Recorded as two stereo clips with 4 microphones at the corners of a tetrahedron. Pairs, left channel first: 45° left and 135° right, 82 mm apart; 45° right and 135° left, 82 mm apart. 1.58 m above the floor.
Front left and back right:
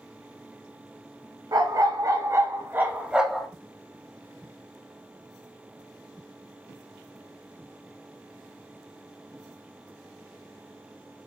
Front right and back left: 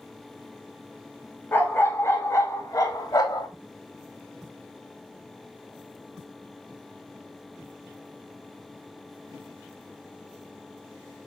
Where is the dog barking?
105° right, 2.5 m; by 3.5 s 45° right, 1.4 m.